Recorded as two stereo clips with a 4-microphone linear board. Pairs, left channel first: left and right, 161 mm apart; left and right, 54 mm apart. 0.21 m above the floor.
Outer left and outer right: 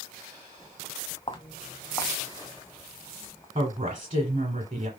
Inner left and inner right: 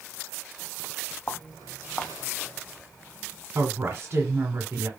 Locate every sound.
1.3 s footsteps: 35° left (ahead or behind), 0.6 m; by 3.5 s 10° left (ahead or behind), 1.6 m
3.5 s a woman speaking: 40° right (ahead or behind), 1.4 m